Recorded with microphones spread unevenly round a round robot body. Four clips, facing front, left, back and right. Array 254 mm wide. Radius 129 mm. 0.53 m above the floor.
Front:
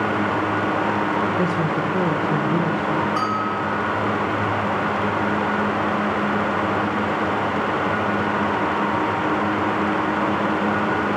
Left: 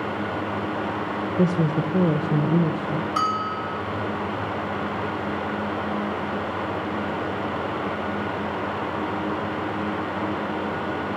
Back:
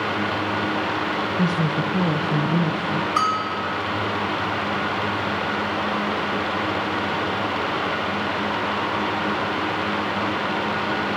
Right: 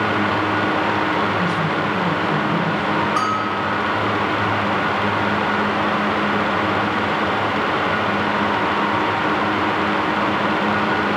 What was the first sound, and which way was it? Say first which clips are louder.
A woman speaking: right 2 dB, front 1 dB; 70° left.